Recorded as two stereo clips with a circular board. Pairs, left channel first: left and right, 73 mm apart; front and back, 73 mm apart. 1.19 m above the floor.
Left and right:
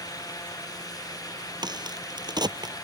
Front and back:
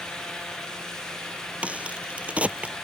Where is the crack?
110° right.